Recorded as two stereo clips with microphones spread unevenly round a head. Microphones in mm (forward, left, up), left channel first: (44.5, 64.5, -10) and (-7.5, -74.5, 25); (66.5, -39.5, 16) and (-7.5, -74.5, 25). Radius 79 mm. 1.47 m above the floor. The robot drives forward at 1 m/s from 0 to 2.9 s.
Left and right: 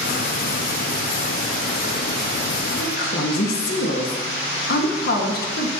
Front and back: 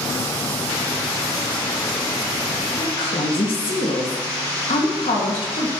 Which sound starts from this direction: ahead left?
A woman speaking, at 2.8 s.